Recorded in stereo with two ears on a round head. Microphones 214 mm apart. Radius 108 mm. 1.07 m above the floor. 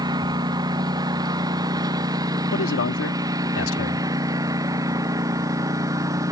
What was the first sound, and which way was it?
A lawn mower, 15° right (ahead or behind).